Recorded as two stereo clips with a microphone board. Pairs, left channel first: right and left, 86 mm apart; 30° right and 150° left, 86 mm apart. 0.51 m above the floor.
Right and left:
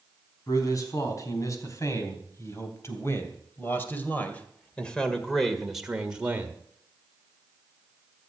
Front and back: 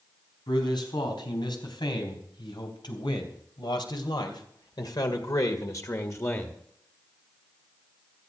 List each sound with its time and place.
0.5 s a man speaking: 50° right, 4.5 m; by 6.5 s 25° left, 1.7 m